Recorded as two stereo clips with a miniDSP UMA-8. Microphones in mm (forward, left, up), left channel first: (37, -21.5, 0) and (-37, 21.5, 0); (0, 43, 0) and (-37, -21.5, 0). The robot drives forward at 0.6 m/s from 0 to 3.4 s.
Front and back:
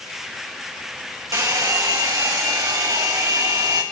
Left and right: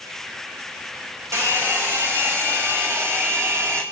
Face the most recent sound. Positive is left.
turn(degrees=-170)